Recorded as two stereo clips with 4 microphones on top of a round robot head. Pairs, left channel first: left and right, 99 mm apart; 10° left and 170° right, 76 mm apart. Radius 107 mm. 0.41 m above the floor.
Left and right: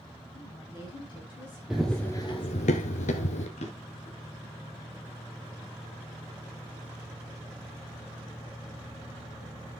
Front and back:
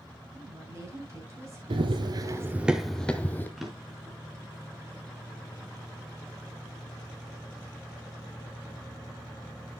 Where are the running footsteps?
175° right, 0.9 m; by 3.5 s 75° left, 1.1 m.